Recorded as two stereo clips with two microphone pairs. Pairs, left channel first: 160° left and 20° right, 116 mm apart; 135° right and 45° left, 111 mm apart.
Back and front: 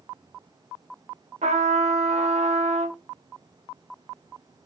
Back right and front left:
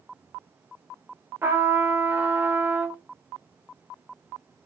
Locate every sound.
1.4 s a trumpet: 25° right, 0.6 m